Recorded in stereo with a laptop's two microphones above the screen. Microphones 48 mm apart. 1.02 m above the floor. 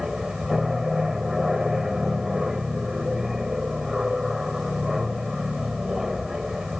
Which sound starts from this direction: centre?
An aircraft, at 0.0 s.